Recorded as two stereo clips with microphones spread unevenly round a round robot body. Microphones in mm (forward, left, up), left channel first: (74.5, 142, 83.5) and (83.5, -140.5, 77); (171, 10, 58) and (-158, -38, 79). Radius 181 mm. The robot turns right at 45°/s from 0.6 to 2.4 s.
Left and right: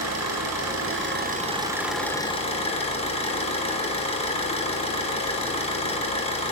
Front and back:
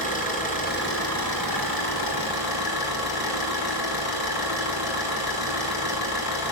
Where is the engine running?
60° right, 3.5 m; by 6.5 s 20° left, 3.5 m.